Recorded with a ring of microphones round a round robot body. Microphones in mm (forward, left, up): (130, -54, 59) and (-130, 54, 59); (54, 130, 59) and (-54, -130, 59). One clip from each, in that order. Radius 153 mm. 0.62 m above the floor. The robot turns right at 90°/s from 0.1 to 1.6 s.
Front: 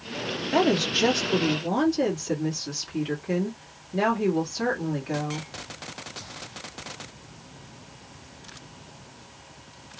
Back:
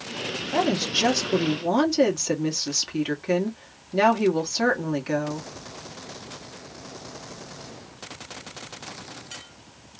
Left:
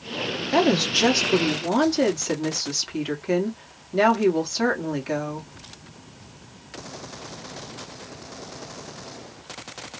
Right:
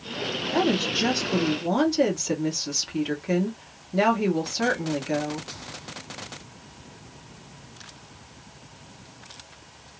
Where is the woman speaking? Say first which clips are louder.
Front 1 dB, left 5 dB; 40° left, 1.5 m; by 5.5 s 140° left, 1.5 m.